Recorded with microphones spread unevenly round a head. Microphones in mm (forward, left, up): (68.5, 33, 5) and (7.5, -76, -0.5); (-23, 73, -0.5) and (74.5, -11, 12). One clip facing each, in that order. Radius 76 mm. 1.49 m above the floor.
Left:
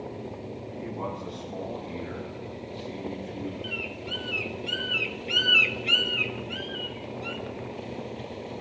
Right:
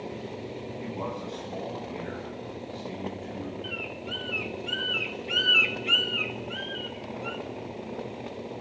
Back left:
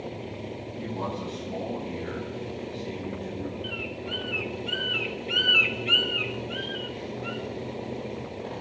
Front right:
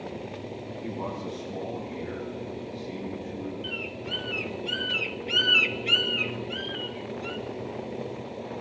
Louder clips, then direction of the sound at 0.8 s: Left 1 dB, back left 2 dB; straight behind.